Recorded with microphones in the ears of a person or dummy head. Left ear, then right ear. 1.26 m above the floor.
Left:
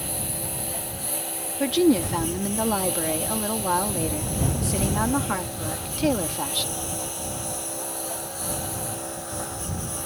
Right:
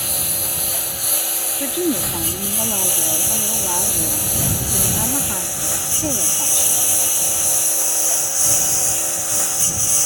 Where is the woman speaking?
25° left (ahead or behind).